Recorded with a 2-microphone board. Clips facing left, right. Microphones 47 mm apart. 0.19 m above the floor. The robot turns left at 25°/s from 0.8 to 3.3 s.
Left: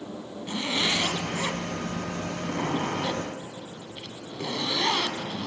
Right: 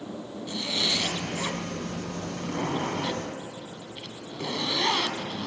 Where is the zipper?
65° left, 0.6 m; by 5.5 s 5° left, 0.6 m.